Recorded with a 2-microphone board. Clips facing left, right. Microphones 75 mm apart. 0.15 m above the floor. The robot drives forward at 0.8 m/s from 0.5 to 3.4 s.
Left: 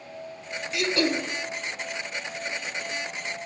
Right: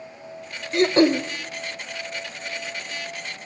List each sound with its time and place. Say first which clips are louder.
0.7 s throat clearing: right 8 dB; 45° right (ahead or behind), 0.5 m; by 1.2 s 25° right (ahead or behind), 0.8 m